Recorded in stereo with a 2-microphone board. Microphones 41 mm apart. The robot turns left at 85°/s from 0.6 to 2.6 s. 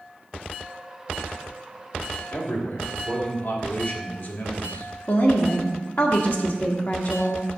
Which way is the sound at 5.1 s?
50° left (ahead or behind).